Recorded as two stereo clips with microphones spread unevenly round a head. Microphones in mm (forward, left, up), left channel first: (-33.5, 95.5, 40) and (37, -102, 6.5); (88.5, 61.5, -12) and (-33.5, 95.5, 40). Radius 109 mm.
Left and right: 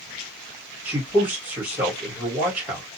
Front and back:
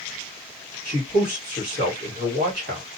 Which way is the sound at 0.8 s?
150° right.